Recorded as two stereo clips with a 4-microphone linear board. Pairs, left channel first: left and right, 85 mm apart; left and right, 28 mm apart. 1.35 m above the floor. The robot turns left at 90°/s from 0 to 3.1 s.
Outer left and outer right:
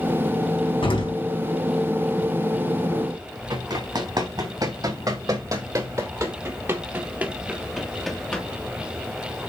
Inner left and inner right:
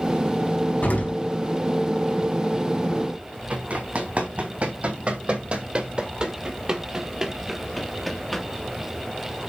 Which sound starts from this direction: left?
An explosion, at 0.8 s.